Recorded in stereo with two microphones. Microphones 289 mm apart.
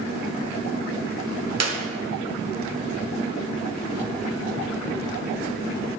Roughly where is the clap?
Right.